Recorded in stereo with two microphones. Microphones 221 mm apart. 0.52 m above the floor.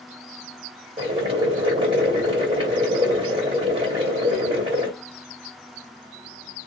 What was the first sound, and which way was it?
Boiling, 25° right (ahead or behind).